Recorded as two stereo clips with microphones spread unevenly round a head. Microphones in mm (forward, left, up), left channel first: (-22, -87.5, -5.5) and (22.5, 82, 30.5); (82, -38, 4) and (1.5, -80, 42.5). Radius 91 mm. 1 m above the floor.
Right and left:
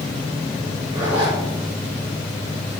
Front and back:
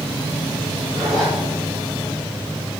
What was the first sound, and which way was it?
A zipper, 140° left.